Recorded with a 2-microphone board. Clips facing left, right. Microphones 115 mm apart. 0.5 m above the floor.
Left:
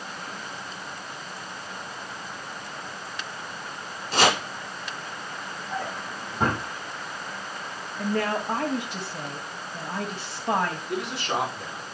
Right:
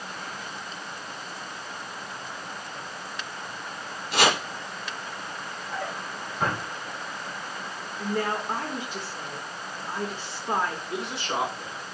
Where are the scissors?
No scissors in this recording.